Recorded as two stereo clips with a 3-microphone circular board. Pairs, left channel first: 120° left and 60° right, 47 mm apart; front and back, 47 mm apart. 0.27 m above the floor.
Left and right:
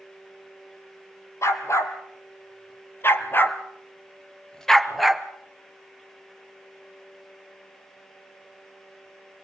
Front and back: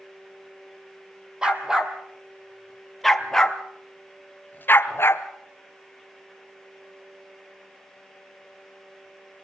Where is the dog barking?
105° left, 2.5 m; by 5.2 s 25° left, 1.4 m.